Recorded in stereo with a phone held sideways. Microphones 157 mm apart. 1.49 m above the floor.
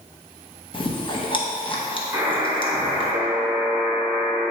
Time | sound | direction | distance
0.7 | chewing | 35° left (ahead or behind) | 0.9 m
2.1 | a buzzer | 15° right (ahead or behind) | 1.6 m